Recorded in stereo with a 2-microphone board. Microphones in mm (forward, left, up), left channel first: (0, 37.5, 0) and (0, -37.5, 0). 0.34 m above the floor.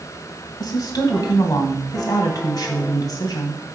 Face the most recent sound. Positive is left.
turn(degrees=60)  # may be behind; listen again after turning